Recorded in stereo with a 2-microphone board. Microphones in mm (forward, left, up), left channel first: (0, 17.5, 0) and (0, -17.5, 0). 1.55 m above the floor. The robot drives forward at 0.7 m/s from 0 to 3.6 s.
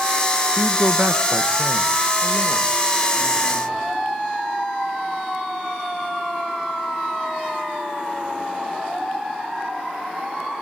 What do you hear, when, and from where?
0.6 s a man speaking: 40° right (ahead or behind), 0.6 m; by 4.0 s 10° right (ahead or behind), 2 m